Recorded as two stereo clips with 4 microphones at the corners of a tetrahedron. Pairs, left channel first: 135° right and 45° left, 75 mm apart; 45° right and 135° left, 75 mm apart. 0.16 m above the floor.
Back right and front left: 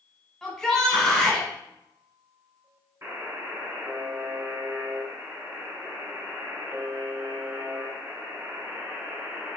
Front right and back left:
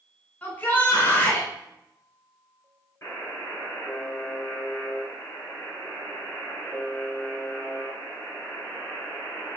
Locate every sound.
0.4 s a shout: 65° right, 1.5 m
3.0 s a buzzer: 5° left, 1.8 m